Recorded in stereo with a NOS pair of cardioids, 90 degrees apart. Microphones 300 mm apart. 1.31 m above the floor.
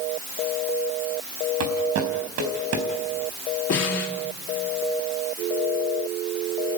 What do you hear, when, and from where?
1.6 s footsteps: 65° right, 4.5 m
3.7 s a snare drum: 55° left, 3.5 m